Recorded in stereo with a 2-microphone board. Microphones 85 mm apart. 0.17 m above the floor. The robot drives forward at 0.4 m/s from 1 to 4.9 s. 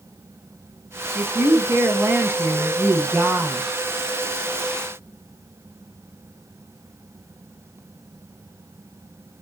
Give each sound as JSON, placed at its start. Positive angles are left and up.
{"t": 1.1, "sound": "a woman speaking", "side_deg": -25, "distance_m": 1.2}